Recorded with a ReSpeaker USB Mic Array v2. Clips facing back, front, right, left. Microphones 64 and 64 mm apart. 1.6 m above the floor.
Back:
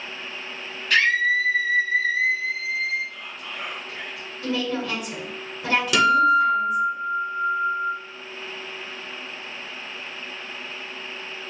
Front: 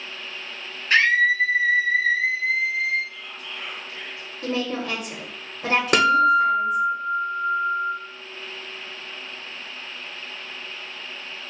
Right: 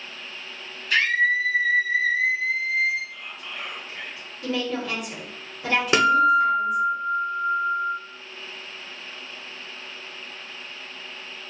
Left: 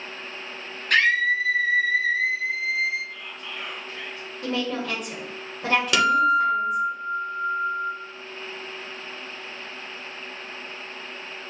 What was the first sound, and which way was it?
A scream, 60° left.